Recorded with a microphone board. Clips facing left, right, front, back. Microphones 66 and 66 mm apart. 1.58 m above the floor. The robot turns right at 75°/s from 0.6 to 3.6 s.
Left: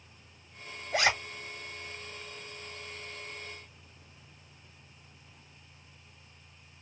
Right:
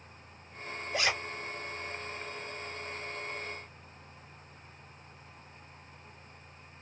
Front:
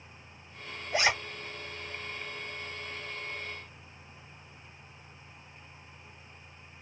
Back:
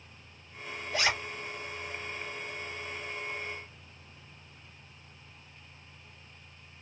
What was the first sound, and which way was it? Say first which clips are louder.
A zipper: left 4 dB, front 2 dB; 65° left.